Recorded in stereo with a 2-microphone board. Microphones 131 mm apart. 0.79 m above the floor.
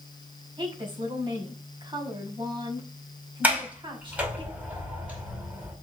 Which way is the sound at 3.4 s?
15° right (ahead or behind).